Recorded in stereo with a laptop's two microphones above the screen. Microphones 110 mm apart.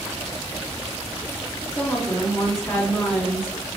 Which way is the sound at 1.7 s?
15° left (ahead or behind).